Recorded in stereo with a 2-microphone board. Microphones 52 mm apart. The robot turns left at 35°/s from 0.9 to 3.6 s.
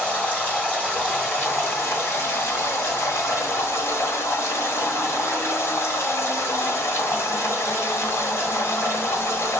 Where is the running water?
155° left, 2.5 m; by 9.6 s 60° left, 2.5 m.